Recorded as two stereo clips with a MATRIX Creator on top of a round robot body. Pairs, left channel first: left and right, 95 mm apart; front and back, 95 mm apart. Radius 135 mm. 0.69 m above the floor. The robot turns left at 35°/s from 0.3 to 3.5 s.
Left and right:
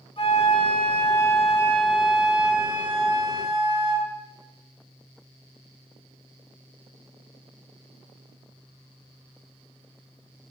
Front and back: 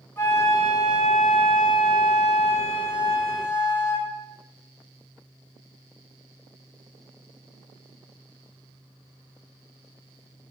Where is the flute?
70° left, 3.5 m; by 4.1 s 45° right, 3.5 m.